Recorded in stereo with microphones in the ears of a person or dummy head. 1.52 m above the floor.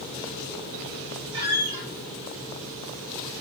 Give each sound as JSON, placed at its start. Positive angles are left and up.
{"t": 1.3, "sound": "a squeak", "side_deg": -20, "distance_m": 1.0}